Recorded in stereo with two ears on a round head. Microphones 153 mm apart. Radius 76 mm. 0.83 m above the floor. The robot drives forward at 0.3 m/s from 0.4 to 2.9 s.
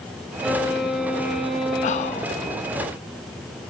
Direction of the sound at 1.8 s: 45° left (ahead or behind).